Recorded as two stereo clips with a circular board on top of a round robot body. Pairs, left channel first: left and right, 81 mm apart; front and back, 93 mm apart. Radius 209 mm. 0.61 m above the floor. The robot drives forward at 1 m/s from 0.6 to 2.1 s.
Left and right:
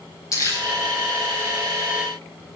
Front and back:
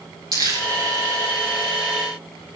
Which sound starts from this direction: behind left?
Crumpling, at 0.3 s.